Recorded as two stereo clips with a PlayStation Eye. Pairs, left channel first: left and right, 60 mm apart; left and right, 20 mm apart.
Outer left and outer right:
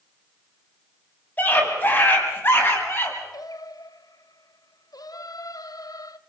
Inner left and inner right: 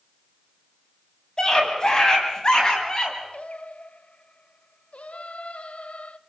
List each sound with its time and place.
1.4 s a scream: 35° left (ahead or behind), 6 m; by 3.2 s 40° left (ahead or behind), 6.5 m
3.3 s singing: 75° left (ahead or behind), 0.8 m